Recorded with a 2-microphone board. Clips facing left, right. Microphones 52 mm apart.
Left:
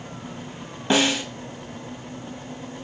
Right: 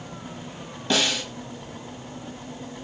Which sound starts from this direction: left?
A snare drum, at 0.9 s.